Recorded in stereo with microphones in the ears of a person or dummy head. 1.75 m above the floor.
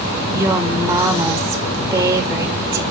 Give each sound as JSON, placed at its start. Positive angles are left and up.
{"t": 0.3, "sound": "a woman speaking", "side_deg": -15, "distance_m": 0.7}